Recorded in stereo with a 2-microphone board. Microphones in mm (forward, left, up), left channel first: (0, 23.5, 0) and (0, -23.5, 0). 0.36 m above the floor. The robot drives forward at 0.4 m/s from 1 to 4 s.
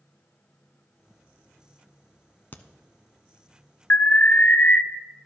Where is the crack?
40° left (ahead or behind), 0.7 m.